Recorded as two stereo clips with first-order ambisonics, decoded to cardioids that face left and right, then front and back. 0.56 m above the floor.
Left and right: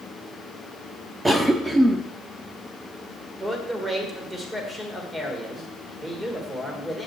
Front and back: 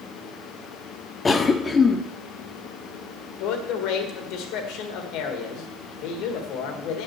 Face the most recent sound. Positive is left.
turn(degrees=-15)